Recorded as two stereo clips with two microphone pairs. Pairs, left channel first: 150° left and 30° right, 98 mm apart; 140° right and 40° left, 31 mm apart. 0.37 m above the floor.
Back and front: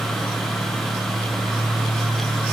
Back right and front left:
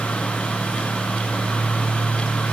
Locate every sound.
Only background noise.